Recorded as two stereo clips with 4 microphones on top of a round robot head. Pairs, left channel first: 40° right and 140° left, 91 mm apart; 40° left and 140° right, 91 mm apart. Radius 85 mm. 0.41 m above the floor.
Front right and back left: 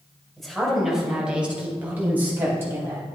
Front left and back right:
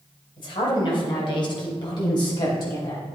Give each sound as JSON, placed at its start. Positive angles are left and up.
{"t": 0.4, "sound": "a woman speaking", "azimuth_deg": 45, "distance_m": 3.0}